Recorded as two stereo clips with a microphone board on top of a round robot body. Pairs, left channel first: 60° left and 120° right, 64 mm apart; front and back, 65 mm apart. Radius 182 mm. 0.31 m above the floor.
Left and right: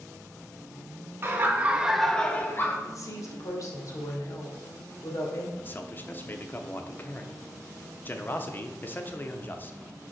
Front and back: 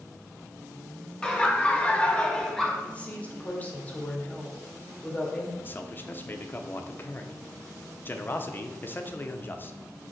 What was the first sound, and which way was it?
Laughter, 70° right.